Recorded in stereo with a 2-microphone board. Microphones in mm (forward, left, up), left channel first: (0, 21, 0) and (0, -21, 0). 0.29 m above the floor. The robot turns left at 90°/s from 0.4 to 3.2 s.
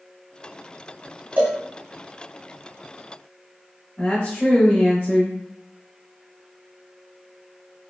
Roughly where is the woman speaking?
Left.